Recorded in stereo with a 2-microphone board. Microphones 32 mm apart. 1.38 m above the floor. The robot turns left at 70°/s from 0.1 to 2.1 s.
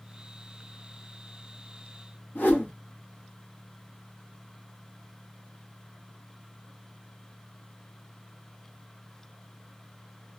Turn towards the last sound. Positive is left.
turn(degrees=75)  # may be behind; listen again after turning